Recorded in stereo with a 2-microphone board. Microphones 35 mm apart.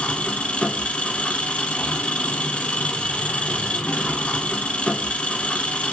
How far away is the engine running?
About 0.8 m.